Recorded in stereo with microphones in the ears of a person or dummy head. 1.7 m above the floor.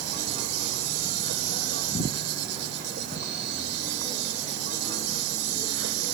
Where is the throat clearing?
No throat clearing in this recording.